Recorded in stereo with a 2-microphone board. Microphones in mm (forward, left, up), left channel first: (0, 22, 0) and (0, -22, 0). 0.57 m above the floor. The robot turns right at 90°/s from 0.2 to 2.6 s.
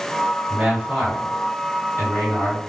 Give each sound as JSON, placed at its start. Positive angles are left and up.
{"t": 0.5, "sound": "a man speaking", "azimuth_deg": -50, "distance_m": 1.8}